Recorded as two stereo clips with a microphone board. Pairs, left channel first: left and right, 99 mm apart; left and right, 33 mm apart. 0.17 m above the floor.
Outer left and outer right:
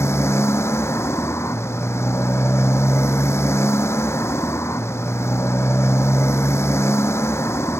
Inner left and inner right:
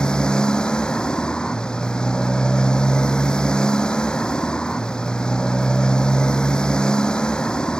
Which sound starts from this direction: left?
A motorcycle, at 0.0 s.